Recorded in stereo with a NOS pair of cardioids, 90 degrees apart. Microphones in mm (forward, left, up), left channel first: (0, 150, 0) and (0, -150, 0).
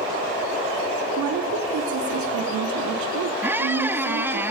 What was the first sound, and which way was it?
A woman speaking, 70° right.